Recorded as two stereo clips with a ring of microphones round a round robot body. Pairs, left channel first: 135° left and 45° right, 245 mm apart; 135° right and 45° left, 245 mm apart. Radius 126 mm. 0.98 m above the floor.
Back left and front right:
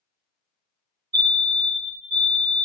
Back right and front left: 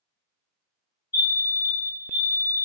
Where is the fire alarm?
70° right, 1.6 m.